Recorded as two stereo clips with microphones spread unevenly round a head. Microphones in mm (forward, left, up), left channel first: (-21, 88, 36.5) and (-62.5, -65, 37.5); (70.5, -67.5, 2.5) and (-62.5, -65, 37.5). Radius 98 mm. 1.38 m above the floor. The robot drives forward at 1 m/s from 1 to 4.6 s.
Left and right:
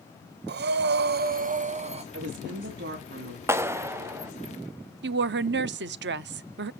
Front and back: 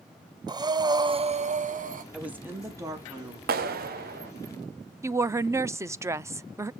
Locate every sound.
0.5 s breathing: 115° right, 0.6 m; by 2.0 s 155° right, 1.4 m
2.1 s a woman speaking: 100° right, 2 m; by 3.4 s 130° right, 2.5 m
3.5 s a clap: straight behind, 0.8 m
5.0 s a woman speaking: 105° right, 0.6 m